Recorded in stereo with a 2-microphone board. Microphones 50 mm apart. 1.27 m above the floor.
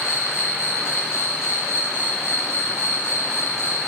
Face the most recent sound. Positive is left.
turn(degrees=75)  # may be behind; listen again after turning